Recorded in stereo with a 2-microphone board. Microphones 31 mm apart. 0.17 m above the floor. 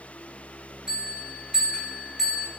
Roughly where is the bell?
Centre.